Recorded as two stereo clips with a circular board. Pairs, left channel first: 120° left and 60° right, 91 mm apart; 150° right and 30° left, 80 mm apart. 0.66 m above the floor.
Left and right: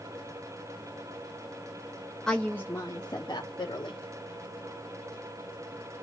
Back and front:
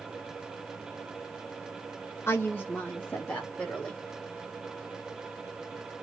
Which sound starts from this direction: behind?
A woman speaking, at 2.3 s.